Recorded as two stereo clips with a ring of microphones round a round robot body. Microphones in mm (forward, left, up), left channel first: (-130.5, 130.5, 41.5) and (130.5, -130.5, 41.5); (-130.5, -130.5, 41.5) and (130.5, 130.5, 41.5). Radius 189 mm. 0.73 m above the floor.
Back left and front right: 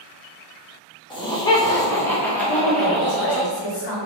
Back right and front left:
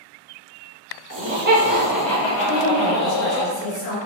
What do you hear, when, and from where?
1.1 s laughter: 65° left, 1.0 m; by 3.4 s 130° right, 1.2 m
2.4 s a woman speaking: 145° left, 2.0 m